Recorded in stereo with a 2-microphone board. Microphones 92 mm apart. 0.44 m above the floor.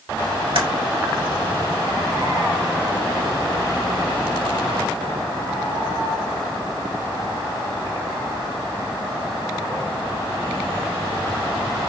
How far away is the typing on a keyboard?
About 0.9 m.